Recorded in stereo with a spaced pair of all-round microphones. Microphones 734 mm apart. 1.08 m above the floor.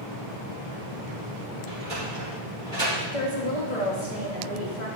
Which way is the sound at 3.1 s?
70° left (ahead or behind).